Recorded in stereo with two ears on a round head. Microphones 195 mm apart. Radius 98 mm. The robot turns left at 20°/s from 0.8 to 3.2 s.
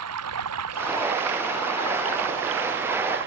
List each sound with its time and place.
0.0 s running water: 80° right; by 3.3 s 125° right